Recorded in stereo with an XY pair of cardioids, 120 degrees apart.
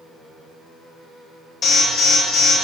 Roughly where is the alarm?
Ahead left.